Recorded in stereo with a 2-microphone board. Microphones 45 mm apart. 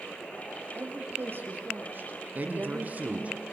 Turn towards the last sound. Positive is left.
turn(degrees=-40)  # may be behind; listen again after turning